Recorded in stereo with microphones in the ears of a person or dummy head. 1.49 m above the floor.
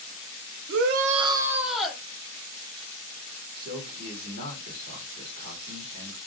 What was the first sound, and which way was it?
A shout, 75° right (ahead or behind).